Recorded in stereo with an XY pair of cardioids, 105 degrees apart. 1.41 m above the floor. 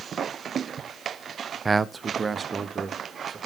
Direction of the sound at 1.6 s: 25° right.